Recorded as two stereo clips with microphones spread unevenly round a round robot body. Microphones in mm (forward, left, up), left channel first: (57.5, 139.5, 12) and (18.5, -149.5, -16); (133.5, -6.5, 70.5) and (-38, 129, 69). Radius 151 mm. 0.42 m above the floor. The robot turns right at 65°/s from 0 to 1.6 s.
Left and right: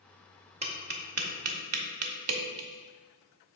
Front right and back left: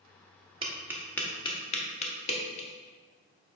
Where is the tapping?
155° right, 0.8 m; by 2.7 s 95° right, 0.8 m.